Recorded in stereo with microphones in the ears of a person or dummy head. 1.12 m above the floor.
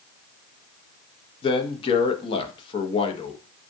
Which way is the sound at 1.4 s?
35° left (ahead or behind).